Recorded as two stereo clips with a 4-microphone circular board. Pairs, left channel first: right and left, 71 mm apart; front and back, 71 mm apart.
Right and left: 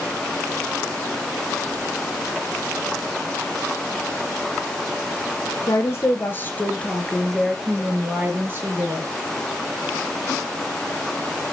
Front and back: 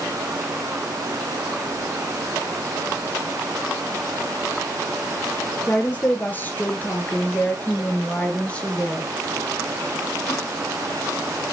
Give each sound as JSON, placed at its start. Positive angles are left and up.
{"t": 5.7, "sound": "a woman speaking", "azimuth_deg": -60, "distance_m": 2.0}